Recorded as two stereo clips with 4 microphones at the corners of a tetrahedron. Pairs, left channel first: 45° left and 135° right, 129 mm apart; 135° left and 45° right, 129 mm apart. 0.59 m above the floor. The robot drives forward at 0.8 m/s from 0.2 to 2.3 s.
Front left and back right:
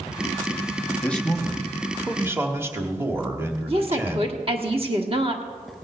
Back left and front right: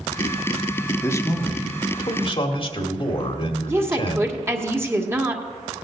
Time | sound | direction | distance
1.0 | a man speaking | 110° left | 1.1 m
3.7 | a woman speaking | 110° right | 1.5 m